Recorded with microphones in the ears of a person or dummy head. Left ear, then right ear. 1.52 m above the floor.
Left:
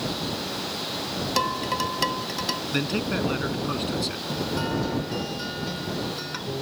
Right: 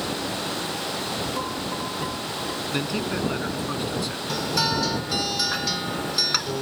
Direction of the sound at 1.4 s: 70° left (ahead or behind).